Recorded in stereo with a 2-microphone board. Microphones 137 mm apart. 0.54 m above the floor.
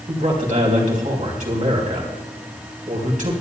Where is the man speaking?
70° right (ahead or behind), 4 m.